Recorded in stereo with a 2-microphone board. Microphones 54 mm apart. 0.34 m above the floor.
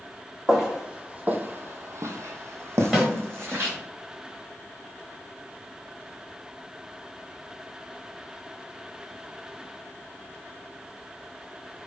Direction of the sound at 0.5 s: 10° right (ahead or behind).